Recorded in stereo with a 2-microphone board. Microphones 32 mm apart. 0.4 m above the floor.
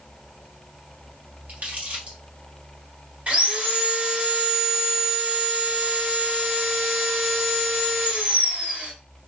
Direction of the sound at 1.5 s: 50° right (ahead or behind).